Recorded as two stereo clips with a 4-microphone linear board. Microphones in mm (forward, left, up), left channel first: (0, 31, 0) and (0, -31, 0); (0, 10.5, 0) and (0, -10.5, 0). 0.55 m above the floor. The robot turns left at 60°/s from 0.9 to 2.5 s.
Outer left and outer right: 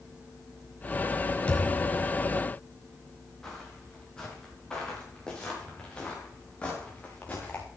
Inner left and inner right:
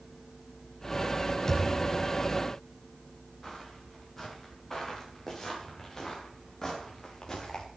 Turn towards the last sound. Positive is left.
turn(degrees=25)  # may be behind; listen again after turning